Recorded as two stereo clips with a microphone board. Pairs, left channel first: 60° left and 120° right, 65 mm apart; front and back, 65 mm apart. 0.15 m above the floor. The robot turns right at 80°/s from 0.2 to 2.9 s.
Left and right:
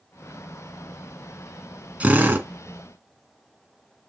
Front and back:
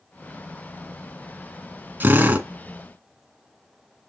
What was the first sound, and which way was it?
A drill, 165° right.